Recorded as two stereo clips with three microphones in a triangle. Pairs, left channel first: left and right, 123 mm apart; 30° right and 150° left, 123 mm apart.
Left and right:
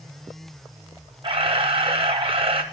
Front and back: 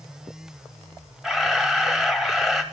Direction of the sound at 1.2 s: 120° right.